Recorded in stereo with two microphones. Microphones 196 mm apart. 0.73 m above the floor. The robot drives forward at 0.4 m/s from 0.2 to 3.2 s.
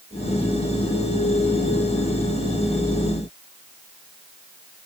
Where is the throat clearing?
No throat clearing in this recording.